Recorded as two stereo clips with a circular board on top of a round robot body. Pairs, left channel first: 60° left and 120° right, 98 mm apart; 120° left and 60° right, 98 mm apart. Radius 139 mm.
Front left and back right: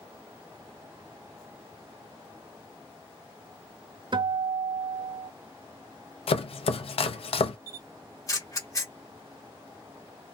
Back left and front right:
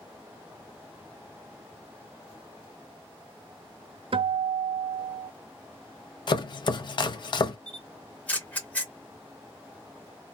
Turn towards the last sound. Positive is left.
turn(degrees=55)